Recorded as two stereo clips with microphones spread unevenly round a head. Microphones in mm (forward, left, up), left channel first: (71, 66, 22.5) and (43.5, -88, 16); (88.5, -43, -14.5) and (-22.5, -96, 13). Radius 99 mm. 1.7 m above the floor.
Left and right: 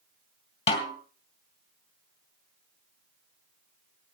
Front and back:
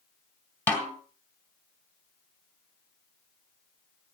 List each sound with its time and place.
0.7 s a snare drum: 115° left, 1.9 m